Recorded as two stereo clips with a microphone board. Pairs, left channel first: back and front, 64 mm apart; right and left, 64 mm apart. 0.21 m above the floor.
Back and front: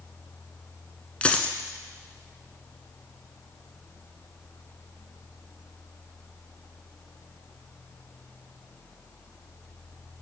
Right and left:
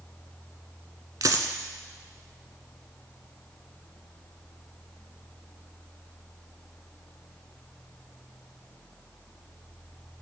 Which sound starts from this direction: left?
A dropped coin, at 1.2 s.